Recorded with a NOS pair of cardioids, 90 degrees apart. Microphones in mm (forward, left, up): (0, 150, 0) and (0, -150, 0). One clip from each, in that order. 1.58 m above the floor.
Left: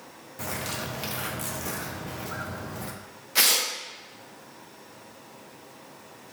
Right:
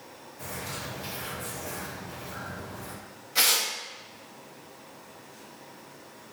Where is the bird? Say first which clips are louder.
Left 4 dB; 70° left, 0.8 m.